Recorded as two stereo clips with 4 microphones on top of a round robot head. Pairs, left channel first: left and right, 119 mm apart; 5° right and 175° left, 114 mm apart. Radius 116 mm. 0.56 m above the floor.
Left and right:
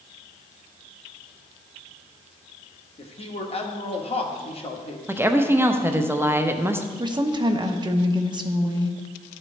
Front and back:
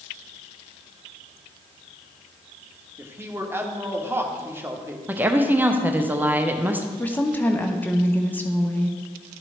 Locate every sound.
3.0 s a man speaking: 110° left, 1.2 m
5.1 s a woman speaking: 130° right, 0.8 m
7.0 s a woman speaking: 70° right, 0.8 m